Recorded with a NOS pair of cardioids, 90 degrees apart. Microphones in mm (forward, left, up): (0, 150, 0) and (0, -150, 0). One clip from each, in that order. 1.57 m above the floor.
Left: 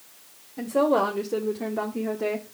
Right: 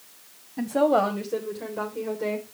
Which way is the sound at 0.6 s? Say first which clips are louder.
Right 1 dB; 10° right.